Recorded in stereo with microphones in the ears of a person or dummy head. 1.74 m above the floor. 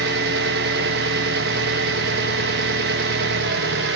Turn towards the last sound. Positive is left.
turn(degrees=-65)  # may be behind; listen again after turning